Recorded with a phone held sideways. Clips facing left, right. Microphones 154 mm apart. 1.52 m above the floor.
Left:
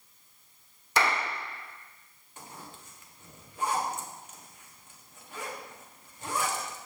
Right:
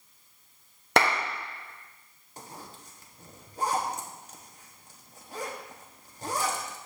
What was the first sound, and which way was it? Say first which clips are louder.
A clap: right 4 dB; 65° right (ahead or behind).